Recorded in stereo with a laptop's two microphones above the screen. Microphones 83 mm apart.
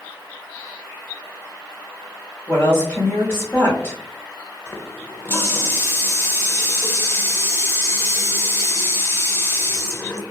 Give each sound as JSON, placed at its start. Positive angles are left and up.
{"t": 2.5, "sound": "a woman speaking", "side_deg": 30, "distance_m": 1.2}
{"t": 4.7, "sound": "a running tap", "side_deg": 30, "distance_m": 0.5}